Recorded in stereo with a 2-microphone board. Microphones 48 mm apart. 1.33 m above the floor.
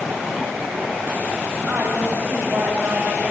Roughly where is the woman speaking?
Right.